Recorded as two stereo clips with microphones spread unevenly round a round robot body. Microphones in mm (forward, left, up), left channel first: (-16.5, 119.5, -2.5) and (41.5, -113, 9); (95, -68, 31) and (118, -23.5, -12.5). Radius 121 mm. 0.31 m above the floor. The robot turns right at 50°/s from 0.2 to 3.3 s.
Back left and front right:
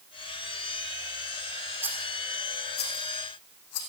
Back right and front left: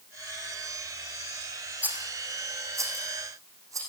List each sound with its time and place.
1.8 s a rattle: 5° left, 5 m; by 3.8 s 80° left, 5 m